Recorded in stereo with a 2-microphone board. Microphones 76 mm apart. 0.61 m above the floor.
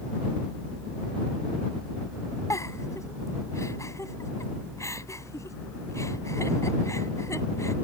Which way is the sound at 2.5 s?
45° left (ahead or behind).